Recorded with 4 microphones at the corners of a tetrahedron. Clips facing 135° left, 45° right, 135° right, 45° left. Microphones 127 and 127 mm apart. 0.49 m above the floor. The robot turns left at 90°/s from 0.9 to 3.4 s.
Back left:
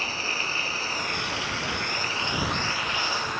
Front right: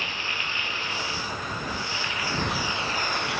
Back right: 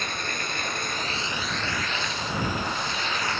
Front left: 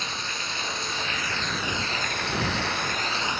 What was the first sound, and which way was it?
Running water, 170° right.